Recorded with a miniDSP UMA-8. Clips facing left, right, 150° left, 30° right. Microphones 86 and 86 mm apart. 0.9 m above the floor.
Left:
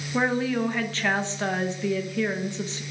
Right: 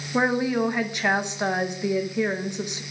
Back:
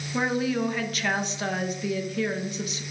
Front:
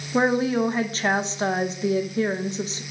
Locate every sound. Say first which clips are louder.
0.1 s a woman speaking: right 2 dB, front 5 dB; 35° right, 0.8 m